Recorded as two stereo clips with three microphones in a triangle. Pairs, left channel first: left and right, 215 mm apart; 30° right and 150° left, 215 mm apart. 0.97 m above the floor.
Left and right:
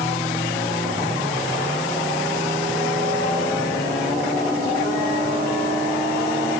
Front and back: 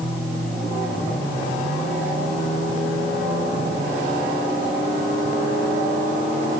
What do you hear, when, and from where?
Only background noise.